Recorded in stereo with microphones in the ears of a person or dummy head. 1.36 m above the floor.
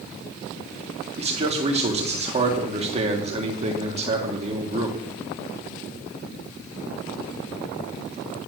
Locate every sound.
1.2 s a man speaking: 35° right (ahead or behind), 1.7 m